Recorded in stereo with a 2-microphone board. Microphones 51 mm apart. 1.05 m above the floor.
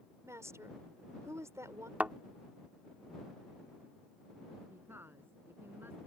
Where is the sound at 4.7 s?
50° right (ahead or behind).